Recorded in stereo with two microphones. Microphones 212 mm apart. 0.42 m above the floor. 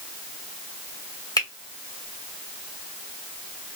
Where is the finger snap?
20° left (ahead or behind), 1.0 m.